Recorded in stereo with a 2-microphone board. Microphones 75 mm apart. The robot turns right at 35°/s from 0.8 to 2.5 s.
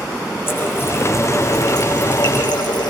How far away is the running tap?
About 6.5 m.